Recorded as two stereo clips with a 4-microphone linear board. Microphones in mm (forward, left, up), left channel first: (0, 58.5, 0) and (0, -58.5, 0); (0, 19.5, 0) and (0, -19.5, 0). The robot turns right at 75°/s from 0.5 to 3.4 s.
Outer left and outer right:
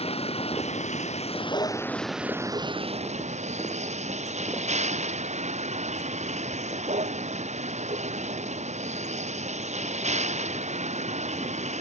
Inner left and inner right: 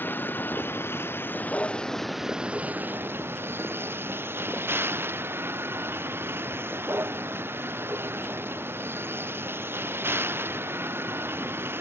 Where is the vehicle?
60° left; by 11.8 s 80° right.